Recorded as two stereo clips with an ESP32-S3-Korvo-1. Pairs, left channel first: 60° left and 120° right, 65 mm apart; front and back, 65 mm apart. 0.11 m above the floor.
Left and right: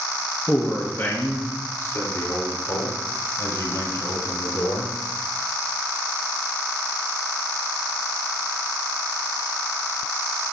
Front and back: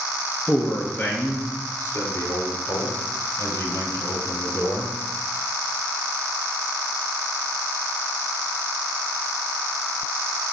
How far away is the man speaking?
About 1.5 m.